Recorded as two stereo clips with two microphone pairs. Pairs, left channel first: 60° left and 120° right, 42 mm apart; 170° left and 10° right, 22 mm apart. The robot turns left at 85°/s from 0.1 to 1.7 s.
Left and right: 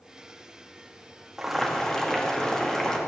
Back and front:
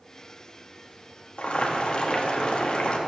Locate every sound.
1.4 s boiling: 165° left, 1.9 m; by 3.0 s 135° left, 1.9 m